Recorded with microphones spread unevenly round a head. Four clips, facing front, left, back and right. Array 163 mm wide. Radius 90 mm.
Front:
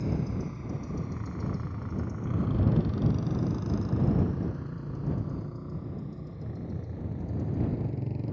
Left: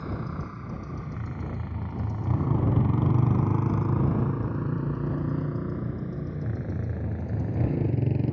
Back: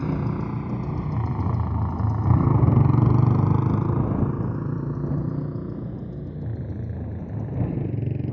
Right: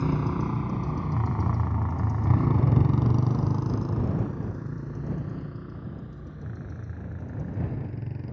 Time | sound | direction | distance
0.0 | a motorcycle | 130° right | ?